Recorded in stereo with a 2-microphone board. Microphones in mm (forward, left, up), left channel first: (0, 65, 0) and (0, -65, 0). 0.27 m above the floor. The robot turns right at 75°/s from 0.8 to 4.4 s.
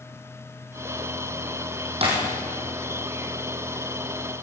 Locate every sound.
2.0 s breaking glass: 50° right (ahead or behind), 5 m; by 2.1 s 55° right (ahead or behind), 5 m